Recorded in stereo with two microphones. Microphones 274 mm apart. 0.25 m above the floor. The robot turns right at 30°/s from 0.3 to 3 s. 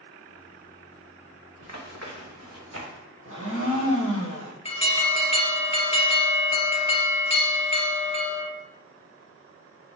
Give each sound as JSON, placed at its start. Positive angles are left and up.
{"t": 1.6, "sound": "running footsteps", "side_deg": -85, "distance_m": 2.5}
{"t": 3.2, "sound": "a blender", "side_deg": -55, "distance_m": 2.5}
{"t": 4.7, "sound": "an alarm", "side_deg": 25, "distance_m": 2.0}